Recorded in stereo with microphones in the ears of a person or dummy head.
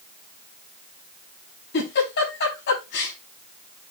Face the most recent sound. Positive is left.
turn(degrees=60)  # may be behind; listen again after turning